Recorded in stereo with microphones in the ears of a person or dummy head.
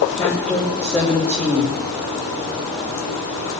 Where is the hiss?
I don't hear a hiss.